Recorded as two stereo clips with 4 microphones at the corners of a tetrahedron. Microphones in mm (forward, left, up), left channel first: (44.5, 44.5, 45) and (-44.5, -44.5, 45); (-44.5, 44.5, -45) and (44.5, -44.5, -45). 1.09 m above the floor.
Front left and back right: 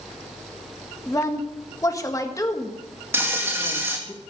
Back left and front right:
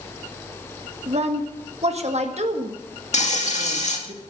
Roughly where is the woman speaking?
Ahead.